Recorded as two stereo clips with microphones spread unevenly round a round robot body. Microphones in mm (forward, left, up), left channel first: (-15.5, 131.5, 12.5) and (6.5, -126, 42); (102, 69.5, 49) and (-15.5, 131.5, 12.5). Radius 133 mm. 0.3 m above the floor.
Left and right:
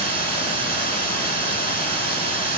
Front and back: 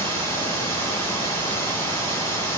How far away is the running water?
About 1.8 m.